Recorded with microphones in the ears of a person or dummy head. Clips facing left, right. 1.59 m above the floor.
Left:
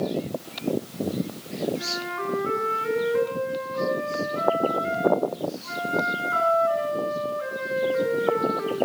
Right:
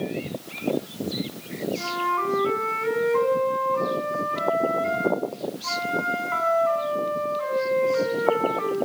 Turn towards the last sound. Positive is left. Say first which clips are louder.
# right 3 dB
turn(degrees=-65)  # may be behind; listen again after turning